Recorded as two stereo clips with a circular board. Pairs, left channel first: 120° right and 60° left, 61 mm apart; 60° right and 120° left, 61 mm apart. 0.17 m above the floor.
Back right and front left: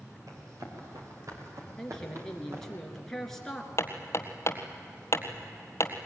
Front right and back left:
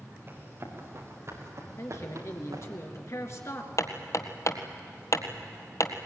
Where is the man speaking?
40° right, 2.5 m.